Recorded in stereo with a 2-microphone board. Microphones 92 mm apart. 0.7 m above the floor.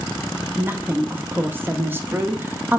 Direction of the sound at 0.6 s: 20° right (ahead or behind).